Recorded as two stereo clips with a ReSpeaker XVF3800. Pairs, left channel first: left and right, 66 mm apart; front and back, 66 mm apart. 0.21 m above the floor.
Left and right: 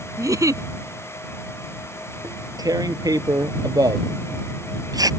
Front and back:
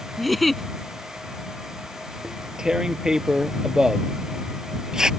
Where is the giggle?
90° right.